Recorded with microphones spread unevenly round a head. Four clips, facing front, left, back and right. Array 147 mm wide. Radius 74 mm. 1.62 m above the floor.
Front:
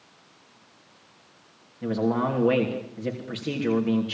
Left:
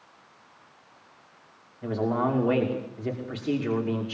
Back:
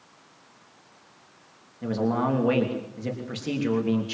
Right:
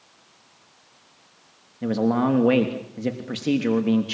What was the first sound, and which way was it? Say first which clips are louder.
A man speaking: right 5 dB, even; 85° right.